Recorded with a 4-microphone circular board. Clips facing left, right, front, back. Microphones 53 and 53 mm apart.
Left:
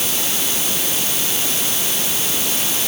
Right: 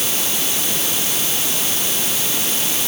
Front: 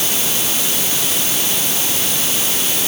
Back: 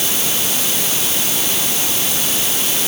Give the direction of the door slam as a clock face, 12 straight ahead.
I don't hear a door slam.